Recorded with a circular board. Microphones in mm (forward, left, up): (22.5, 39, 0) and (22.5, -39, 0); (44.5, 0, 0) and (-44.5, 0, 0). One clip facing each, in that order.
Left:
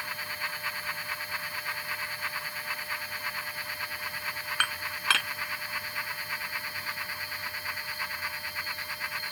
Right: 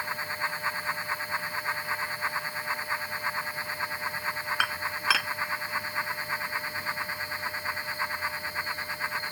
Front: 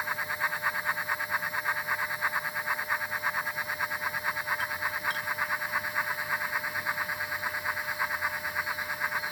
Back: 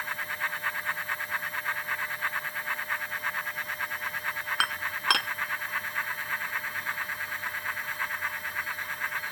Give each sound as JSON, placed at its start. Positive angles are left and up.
{"t": 4.6, "sound": "dishes clattering", "azimuth_deg": -175}